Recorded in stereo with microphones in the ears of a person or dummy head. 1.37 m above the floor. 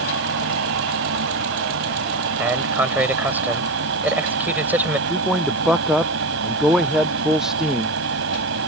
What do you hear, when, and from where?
0.0 s a fan: 75° right (ahead or behind)
2.4 s a man speaking: 10° right (ahead or behind)
5.1 s a man speaking: centre (ahead or behind)